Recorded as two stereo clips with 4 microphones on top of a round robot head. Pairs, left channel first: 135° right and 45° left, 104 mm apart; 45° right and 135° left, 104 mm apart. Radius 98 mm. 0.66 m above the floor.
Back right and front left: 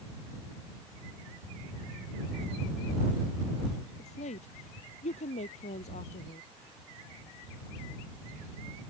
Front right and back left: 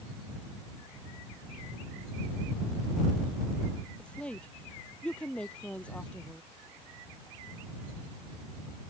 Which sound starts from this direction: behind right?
A woman speaking, at 4.0 s.